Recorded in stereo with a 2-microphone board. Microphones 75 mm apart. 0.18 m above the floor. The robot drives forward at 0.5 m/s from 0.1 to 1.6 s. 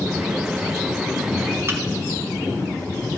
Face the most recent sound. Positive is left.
turn(degrees=-35)  # may be behind; listen again after turning